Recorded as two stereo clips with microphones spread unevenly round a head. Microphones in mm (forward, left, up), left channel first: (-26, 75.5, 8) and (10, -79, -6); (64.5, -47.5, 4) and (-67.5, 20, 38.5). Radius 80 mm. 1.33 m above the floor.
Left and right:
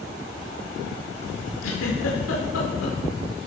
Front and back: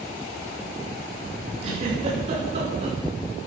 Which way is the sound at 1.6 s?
100° left.